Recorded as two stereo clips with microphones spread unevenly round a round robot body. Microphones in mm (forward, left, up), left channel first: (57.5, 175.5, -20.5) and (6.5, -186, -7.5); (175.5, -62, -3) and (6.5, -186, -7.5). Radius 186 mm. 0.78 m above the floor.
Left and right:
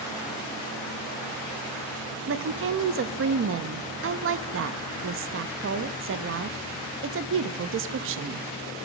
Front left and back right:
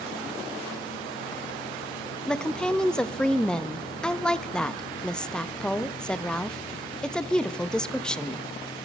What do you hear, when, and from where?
2.3 s a woman speaking: 50° right, 0.5 m